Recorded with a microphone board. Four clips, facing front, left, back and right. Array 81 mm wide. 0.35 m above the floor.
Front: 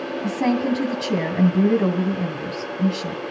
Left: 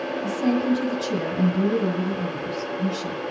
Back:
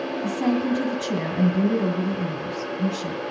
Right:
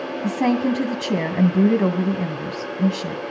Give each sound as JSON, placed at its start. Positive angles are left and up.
{"t": 0.2, "sound": "a woman speaking", "azimuth_deg": -70, "distance_m": 2.0}